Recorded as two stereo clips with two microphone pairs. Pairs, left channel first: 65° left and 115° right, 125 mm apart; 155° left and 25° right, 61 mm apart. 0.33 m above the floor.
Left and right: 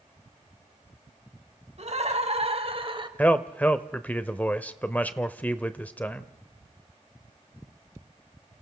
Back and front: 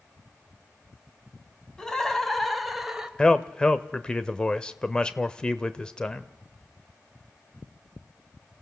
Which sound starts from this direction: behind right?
Laughter, at 1.8 s.